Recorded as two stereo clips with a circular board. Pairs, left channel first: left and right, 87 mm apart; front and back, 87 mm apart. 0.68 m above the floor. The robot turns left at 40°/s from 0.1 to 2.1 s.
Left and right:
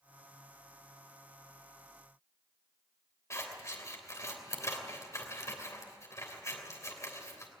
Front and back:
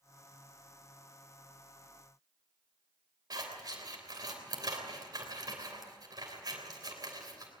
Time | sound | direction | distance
3.3 | scissors | 145° left | 3.5 m